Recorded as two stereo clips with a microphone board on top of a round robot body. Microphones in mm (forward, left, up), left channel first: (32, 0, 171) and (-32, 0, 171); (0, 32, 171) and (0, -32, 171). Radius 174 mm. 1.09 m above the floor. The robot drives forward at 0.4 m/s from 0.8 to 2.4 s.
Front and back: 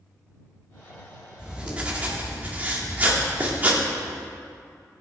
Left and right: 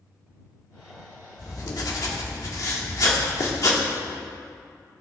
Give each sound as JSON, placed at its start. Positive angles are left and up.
{"t": 1.4, "sound": "writing", "azimuth_deg": 105, "distance_m": 1.8}